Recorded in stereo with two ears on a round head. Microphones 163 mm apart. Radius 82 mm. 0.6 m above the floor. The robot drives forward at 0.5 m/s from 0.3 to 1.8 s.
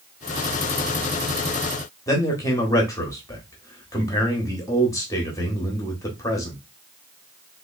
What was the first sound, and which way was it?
A man speaking, 15° left (ahead or behind).